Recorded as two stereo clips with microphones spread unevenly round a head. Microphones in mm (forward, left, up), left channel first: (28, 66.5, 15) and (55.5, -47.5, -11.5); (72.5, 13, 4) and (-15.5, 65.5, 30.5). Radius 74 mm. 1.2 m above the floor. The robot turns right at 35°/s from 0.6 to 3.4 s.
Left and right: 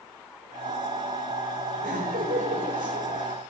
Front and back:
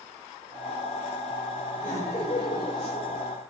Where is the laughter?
110° right, 4 m; by 3.3 s 60° right, 4 m.